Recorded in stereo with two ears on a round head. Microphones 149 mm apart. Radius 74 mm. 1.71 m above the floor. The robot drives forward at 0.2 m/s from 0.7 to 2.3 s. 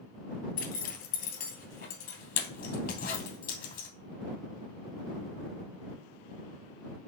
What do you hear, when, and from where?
0.6 s a zipper: 55° left (ahead or behind), 2.5 m